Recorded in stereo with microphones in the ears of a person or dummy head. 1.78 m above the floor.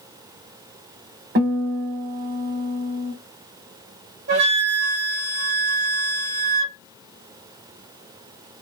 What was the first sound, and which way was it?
A guitar, 45° right (ahead or behind).